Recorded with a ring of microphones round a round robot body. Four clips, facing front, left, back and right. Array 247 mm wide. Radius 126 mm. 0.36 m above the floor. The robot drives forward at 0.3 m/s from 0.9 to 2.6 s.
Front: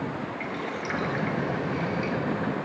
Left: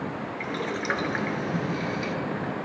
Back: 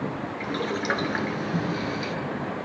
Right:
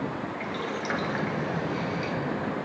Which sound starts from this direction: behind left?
Boiling, at 0.4 s.